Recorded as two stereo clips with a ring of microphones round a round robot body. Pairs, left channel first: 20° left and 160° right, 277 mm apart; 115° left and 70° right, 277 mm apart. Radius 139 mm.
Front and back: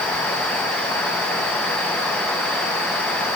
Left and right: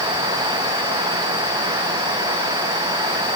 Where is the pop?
I don't hear a pop.